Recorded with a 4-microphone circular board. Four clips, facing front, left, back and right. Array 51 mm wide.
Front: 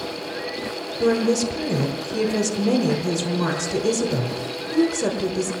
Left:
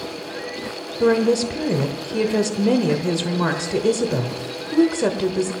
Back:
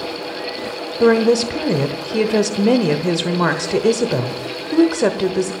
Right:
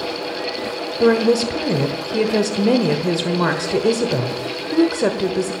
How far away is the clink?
No clink in this recording.